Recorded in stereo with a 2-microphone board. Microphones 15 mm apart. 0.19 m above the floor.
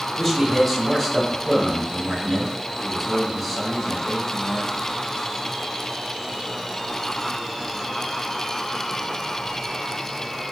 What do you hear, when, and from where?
0.2 s a man speaking: centre (ahead or behind), 1.1 m